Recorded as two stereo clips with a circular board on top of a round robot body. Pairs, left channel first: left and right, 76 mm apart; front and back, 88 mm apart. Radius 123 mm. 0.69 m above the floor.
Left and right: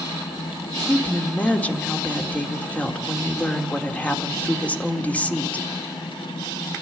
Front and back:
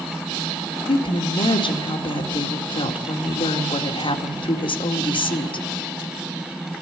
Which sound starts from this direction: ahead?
A woman speaking, at 0.9 s.